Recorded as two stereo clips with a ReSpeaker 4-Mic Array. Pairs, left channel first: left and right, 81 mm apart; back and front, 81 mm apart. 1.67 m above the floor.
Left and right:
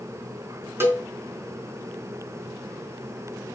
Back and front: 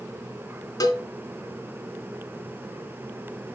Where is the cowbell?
145° right, 4 m.